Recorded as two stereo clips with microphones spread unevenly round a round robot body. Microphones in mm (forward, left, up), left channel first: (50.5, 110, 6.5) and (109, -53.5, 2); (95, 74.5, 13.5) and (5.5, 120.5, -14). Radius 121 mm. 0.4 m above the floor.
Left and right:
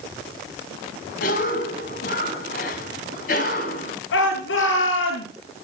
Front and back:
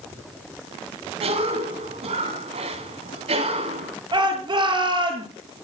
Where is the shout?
110° left, 8 m.